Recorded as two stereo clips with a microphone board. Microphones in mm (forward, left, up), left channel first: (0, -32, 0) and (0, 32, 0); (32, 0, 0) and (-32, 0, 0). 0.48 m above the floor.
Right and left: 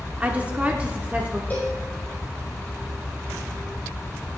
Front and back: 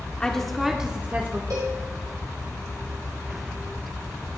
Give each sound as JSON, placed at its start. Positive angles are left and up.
{"t": 0.2, "sound": "a woman speaking", "azimuth_deg": 55, "distance_m": 0.9}
{"t": 1.5, "sound": "a cowbell", "azimuth_deg": -155, "distance_m": 2.5}